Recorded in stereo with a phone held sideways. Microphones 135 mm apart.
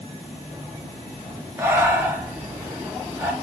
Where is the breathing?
15° right (ahead or behind), 0.7 m.